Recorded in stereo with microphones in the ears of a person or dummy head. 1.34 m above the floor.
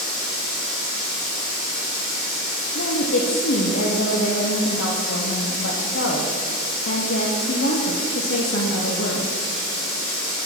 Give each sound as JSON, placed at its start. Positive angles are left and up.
{"t": 0.0, "sound": "running water", "side_deg": 75, "distance_m": 4.0}
{"t": 2.8, "sound": "a woman speaking", "side_deg": 75, "distance_m": 1.0}